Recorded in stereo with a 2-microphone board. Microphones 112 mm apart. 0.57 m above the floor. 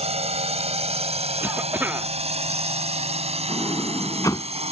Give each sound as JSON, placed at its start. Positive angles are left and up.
{"t": 0.0, "sound": "a drone", "side_deg": -70}
{"t": 1.4, "sound": "a cough", "side_deg": -15}
{"t": 3.5, "sound": "a sliding door", "side_deg": 30}